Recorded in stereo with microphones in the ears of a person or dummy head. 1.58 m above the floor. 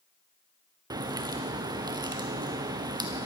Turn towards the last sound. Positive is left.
turn(degrees=-15)  # may be behind; listen again after turning